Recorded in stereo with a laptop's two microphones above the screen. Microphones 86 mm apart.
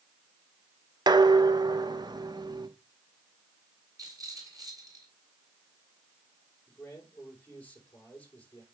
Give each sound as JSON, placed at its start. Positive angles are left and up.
{"t": 1.1, "sound": "dishes clattering", "side_deg": -55, "distance_m": 0.9}
{"t": 4.0, "sound": "a rattle", "side_deg": -45, "distance_m": 2.5}
{"t": 6.7, "sound": "a man speaking", "side_deg": 20, "distance_m": 4.5}